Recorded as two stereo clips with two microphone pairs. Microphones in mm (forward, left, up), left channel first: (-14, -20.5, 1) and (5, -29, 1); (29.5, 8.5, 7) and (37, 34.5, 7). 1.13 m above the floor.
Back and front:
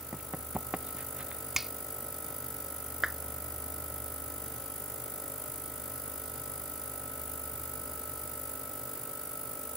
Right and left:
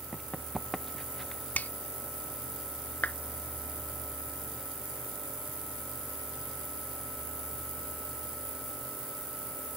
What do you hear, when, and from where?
0.1 s running footsteps: 25° right; by 1.4 s 30° right
1.6 s a finger snap: 105° right
3.0 s a clap: 95° right